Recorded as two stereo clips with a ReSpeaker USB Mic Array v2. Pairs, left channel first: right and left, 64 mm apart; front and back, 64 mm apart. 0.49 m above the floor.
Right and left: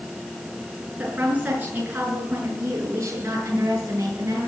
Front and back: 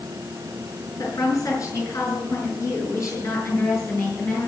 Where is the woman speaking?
25° left, 6.5 m; by 4.5 s 55° left, 7.5 m.